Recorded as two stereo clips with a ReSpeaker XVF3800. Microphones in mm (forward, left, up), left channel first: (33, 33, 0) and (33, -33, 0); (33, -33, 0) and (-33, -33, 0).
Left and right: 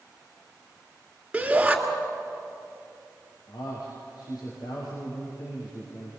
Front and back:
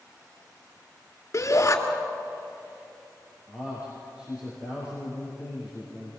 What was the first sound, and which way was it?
A shout, 20° right.